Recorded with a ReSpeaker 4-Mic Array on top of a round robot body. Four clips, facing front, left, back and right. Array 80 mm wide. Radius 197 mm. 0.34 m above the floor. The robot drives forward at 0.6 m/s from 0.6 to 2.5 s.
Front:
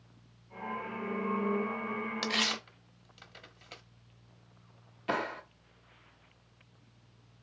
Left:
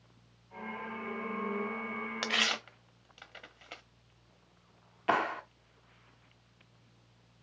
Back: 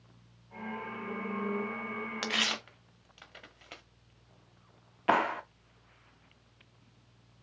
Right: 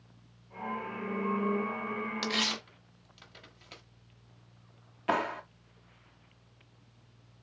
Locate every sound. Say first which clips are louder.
2.2 s tearing paper: even, front 1 dB; 115° left, 1.5 m; by 3.8 s 125° left, 1.5 m
5.1 s a clap: even, back 6 dB; 170° left, 1.1 m